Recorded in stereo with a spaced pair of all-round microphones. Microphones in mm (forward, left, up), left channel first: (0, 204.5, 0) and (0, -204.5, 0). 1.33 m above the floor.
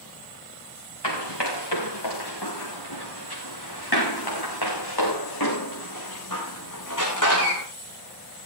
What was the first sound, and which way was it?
Running footsteps, 80° left.